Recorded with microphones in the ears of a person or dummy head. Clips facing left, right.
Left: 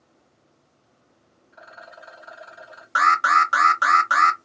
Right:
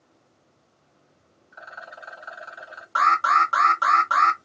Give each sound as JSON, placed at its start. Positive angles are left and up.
{"t": 1.5, "sound": "a rattle", "side_deg": -25, "distance_m": 1.5}
{"t": 3.0, "sound": "an alarm", "side_deg": 15, "distance_m": 0.5}